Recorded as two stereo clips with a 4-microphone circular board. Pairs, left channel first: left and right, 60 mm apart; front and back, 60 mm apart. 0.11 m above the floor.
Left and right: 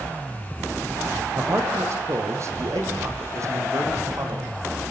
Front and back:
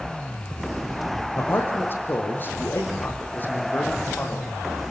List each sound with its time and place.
1.4 s a man speaking: 50° right, 5.5 m; by 4.9 s 65° right, 6.5 m